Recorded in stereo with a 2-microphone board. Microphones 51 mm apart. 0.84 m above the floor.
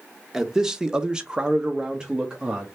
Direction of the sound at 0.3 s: 10° right (ahead or behind).